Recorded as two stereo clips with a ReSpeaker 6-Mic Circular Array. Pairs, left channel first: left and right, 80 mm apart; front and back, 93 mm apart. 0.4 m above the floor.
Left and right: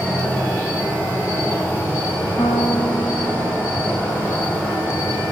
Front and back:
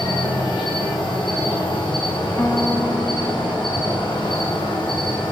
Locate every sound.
0.0 s an insect: 25° left, 4.5 m
2.4 s a piano: 60° left, 1.5 m